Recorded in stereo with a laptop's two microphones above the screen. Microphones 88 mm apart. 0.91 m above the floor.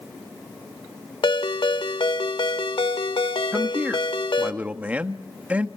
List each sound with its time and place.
1.2 s a ringtone: 70° left (ahead or behind), 1.2 m
3.5 s a man speaking: 15° right (ahead or behind), 1.6 m